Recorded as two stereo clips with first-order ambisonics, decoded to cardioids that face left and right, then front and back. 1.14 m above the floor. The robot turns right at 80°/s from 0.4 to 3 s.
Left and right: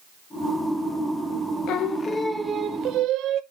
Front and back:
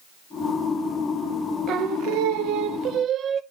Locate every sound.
1.7 s singing: 130° left, 0.7 m; by 3.4 s 125° right, 0.7 m